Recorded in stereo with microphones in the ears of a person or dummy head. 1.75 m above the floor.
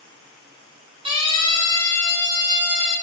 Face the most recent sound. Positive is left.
turn(degrees=-35)  # may be behind; listen again after turning